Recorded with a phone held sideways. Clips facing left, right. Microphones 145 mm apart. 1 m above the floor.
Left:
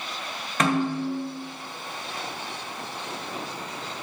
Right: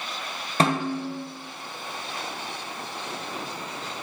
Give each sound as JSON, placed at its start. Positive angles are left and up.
{"t": 0.6, "sound": "a snare drum", "side_deg": -30, "distance_m": 0.6}